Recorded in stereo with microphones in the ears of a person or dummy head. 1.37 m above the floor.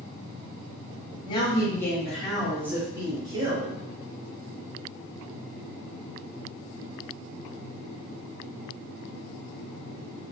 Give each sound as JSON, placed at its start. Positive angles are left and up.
{"t": 1.2, "sound": "a woman speaking", "side_deg": 30, "distance_m": 1.1}